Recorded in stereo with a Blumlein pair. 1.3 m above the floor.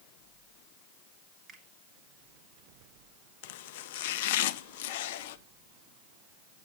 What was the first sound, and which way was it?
A finger snap, 25° right.